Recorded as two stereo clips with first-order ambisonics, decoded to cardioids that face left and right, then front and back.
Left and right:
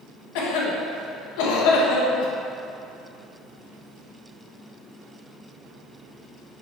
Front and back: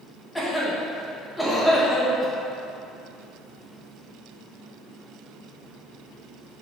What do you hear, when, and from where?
0.3 s a cough: 85° left, 1.5 m